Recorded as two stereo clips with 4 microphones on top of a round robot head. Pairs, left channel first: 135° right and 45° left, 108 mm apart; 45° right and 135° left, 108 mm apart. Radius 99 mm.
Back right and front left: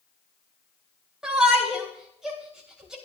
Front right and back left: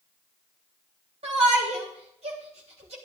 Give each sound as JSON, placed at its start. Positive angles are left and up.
{"t": 1.2, "sound": "a shout", "azimuth_deg": 125, "distance_m": 3.5}